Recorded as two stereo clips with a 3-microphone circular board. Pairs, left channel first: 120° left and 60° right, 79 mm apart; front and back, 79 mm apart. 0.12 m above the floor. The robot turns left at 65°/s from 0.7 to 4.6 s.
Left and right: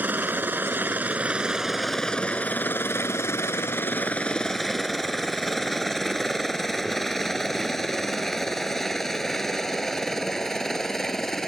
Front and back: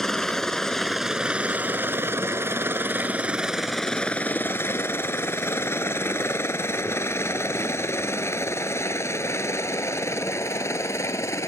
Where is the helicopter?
80° right; by 11.5 s 35° left.